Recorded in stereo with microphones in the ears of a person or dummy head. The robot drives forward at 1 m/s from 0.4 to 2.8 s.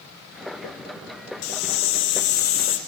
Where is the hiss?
80° left, 1.4 m; by 2.8 s 40° left (ahead or behind), 2 m.